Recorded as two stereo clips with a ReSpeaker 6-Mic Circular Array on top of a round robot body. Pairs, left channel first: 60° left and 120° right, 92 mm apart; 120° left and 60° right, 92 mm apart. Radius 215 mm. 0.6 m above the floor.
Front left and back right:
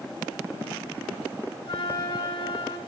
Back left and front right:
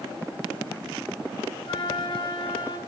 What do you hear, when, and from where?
1.6 s a flute: 80° left, 5 m